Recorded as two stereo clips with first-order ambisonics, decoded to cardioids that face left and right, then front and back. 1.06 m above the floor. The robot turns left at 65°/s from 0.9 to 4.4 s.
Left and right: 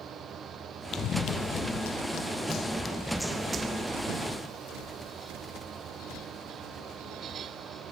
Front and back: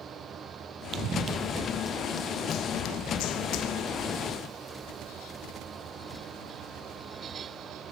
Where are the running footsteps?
135° left; by 4.3 s 70° right.